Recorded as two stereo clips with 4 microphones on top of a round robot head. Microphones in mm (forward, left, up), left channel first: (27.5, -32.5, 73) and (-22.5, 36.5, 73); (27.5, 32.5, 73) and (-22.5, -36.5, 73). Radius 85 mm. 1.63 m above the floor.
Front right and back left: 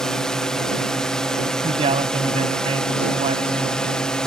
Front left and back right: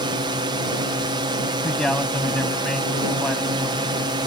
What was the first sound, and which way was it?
A drone, 135° right.